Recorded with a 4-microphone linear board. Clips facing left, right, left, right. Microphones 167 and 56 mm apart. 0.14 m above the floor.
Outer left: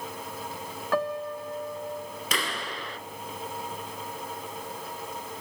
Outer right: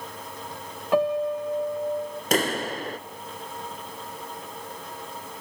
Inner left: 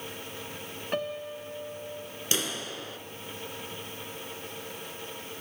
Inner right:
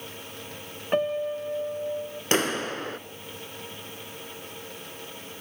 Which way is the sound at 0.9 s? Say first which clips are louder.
Outer right 6 dB, inner right 8 dB; 20° right (ahead or behind).